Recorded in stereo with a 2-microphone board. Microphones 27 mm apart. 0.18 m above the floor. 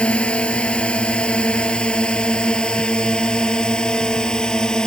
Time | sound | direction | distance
0.0 | a drone | 45° left (ahead or behind) | ?